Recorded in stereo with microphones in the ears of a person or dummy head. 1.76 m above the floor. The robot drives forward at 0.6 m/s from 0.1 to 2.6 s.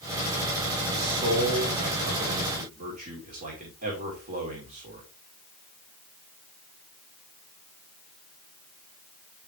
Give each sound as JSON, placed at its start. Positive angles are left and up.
{"t": 0.9, "sound": "a man speaking", "side_deg": -60, "distance_m": 1.9}